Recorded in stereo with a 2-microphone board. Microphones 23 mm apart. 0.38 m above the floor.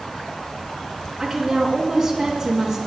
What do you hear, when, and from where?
1.2 s a woman speaking: 10° right (ahead or behind), 3 m